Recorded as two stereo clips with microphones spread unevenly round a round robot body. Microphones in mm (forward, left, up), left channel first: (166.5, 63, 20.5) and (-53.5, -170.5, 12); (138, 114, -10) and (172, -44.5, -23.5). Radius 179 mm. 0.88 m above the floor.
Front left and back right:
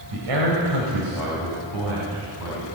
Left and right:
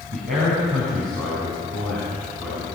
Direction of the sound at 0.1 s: 135° right.